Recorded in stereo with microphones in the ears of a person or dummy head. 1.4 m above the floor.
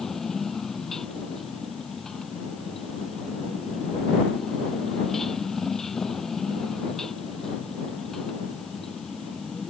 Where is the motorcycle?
5° left (ahead or behind).